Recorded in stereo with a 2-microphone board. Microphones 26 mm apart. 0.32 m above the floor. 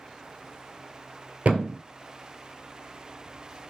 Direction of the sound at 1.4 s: 65° right (ahead or behind).